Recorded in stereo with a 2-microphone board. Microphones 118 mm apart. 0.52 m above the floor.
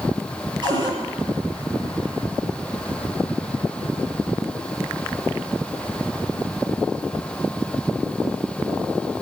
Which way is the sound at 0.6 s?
40° right (ahead or behind).